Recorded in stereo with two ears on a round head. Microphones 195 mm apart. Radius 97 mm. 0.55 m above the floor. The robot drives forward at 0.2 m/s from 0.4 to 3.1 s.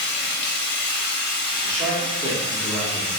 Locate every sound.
0.0 s running water: 55° left (ahead or behind), 0.7 m; by 3.2 s 30° left (ahead or behind), 1.1 m
1.6 s a man speaking: 15° right (ahead or behind), 1.0 m; by 3.1 s 20° right (ahead or behind), 0.9 m